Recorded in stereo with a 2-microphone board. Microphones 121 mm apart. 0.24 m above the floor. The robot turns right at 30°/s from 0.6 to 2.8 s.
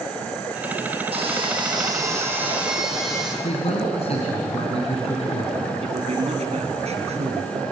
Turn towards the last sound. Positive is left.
turn(degrees=-60)  # may be behind; listen again after turning